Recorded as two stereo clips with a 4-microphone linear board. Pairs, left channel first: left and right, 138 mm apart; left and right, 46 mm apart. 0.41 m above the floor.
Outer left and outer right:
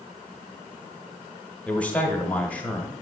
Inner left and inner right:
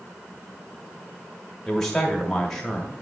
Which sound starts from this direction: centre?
A man speaking, at 1.7 s.